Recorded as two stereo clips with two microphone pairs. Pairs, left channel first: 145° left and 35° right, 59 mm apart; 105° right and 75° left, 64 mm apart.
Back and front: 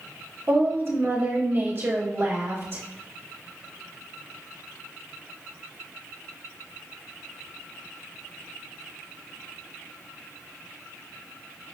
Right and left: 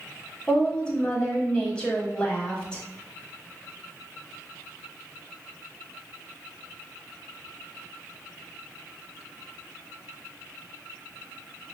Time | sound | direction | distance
0.5 | a woman speaking | 35° right | 1.2 m